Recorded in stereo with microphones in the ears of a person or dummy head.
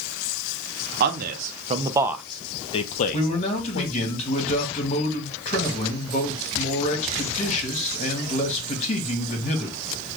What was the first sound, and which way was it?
A man speaking, 55° right (ahead or behind).